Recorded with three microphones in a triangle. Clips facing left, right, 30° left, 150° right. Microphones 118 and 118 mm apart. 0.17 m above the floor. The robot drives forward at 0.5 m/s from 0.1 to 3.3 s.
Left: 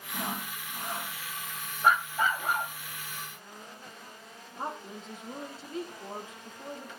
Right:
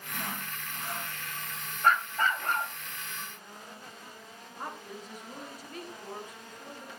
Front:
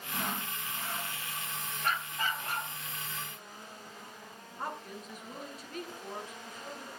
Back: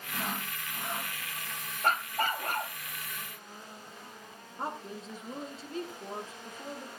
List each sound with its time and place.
0.1 s sawing: 115° left, 0.6 m; by 1.1 s 160° left, 0.9 m
1.8 s a dog barking: 170° left, 0.9 m; by 2.7 s 175° left, 1.3 m
4.6 s a woman speaking: 150° left, 3 m